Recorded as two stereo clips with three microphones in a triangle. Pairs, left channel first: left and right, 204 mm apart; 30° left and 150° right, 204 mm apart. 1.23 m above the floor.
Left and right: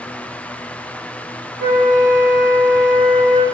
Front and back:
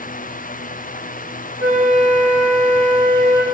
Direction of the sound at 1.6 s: 85° right.